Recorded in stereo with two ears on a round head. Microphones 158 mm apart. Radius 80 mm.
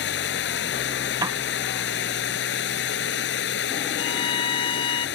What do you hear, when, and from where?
0.0 s running water: 75° left (ahead or behind)
1.2 s a piano: 20° right (ahead or behind)
4.0 s a violin: 25° left (ahead or behind)